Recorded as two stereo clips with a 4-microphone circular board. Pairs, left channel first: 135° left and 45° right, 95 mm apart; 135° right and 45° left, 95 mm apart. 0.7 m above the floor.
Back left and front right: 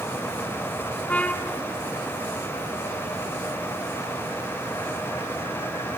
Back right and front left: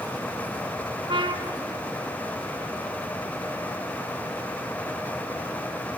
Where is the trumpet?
60° left, 1.2 m.